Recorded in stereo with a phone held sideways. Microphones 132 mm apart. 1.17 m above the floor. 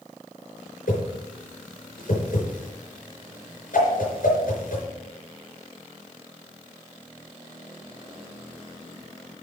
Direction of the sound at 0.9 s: 75° left (ahead or behind).